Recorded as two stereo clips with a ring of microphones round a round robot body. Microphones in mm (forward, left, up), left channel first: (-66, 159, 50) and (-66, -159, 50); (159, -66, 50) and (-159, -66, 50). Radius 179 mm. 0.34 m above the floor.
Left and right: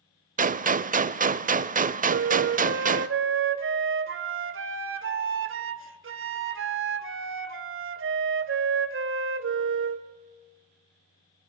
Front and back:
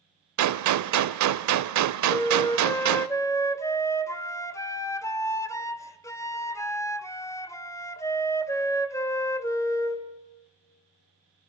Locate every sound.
0.4 s a gunshot: 155° right, 0.7 m
2.1 s a flute: 75° right, 1.5 m